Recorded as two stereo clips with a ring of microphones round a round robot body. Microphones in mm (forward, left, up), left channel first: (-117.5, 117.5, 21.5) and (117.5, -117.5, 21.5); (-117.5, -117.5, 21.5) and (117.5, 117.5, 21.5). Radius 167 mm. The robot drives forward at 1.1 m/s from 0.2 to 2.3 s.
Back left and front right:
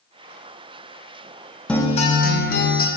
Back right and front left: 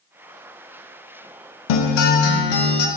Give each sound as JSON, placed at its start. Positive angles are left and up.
{"t": 1.7, "sound": "a guitar", "azimuth_deg": -135, "distance_m": 0.6}